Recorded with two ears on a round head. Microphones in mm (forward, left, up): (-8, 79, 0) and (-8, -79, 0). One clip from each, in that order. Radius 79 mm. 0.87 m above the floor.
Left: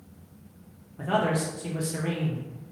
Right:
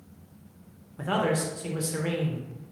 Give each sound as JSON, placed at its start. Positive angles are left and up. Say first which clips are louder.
{"t": 1.0, "sound": "a man speaking", "louder": "left 1 dB", "side_deg": -25, "distance_m": 0.6}